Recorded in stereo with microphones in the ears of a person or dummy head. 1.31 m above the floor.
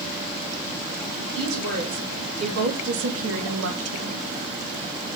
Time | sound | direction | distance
1.2 | a woman speaking | 70° right (ahead or behind) | 4.5 m